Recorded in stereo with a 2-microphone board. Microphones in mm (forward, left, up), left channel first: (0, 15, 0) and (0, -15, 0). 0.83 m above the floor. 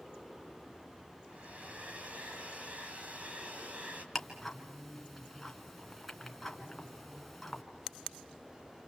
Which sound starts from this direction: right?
A hair dryer, at 1.3 s.